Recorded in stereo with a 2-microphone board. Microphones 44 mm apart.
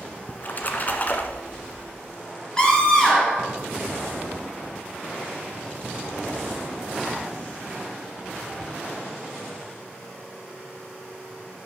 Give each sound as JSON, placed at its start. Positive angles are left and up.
{"t": 0.3, "sound": "a splash", "side_deg": 40, "distance_m": 1.2}
{"t": 2.6, "sound": "a scream", "side_deg": 15, "distance_m": 3.5}